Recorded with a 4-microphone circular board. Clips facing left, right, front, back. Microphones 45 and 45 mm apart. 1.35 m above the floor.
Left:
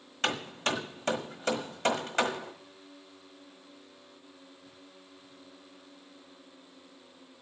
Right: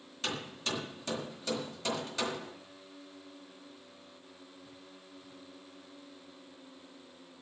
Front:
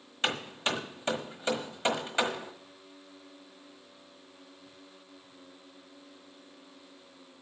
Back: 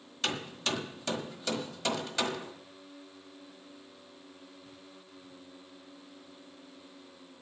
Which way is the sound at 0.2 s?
60° left.